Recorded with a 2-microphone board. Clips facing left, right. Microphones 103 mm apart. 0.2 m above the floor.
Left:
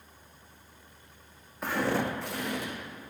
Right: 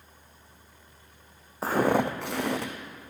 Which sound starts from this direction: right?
Footsteps, at 1.6 s.